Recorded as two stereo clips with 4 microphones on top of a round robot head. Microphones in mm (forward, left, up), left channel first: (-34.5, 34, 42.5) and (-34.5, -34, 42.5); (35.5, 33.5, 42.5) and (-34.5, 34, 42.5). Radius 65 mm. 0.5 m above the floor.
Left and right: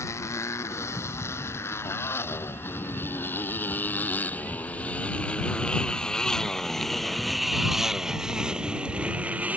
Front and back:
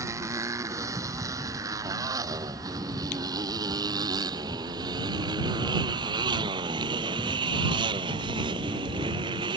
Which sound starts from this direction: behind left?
A motorcycle, at 0.0 s.